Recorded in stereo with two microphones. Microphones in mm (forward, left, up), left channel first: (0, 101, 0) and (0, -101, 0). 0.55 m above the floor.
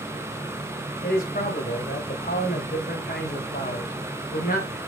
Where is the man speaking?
50° left (ahead or behind), 2.5 m.